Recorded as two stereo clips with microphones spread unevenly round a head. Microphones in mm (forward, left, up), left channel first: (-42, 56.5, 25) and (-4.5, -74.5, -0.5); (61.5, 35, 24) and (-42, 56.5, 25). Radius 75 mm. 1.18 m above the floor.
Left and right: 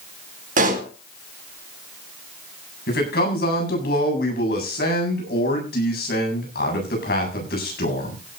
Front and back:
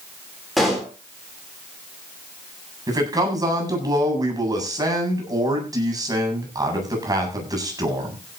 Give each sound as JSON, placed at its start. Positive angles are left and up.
{"t": 0.6, "sound": "a pop", "azimuth_deg": -100, "distance_m": 3.5}
{"t": 2.9, "sound": "a man speaking", "azimuth_deg": 115, "distance_m": 8.0}